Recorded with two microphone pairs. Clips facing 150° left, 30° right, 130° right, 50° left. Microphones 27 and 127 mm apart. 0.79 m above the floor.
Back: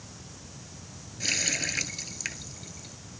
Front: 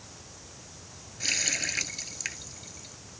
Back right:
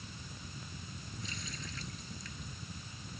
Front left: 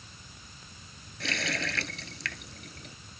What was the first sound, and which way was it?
A running tap, 60° left.